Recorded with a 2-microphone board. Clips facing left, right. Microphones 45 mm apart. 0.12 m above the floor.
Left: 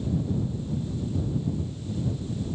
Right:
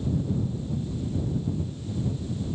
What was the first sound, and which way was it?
Only background noise.